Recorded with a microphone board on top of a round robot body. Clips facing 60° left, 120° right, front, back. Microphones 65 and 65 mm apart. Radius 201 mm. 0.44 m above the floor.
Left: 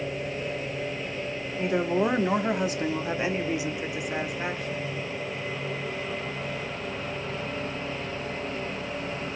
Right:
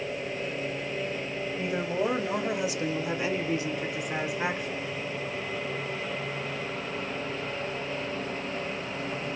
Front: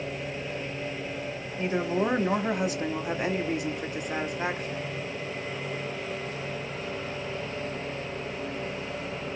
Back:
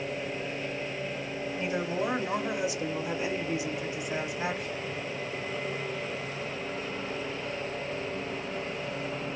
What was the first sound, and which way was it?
A woman speaking, 50° left.